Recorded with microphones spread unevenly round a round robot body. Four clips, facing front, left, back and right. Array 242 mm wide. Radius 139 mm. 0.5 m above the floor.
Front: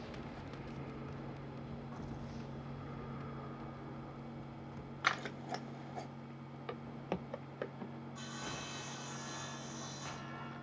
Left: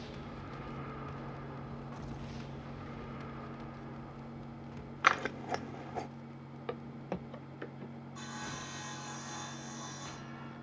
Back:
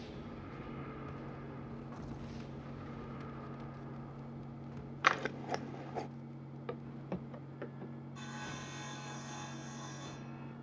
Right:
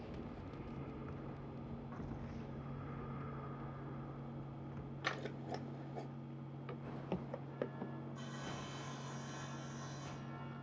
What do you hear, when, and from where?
5.0 s scissors: 90° left, 0.6 m
6.7 s footsteps: 100° left, 0.7 m; by 7.9 s 60° right, 0.9 m
8.2 s sawing: 135° left, 1.4 m